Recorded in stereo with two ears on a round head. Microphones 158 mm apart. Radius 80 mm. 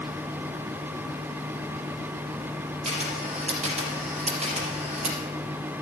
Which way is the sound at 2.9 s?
40° right (ahead or behind).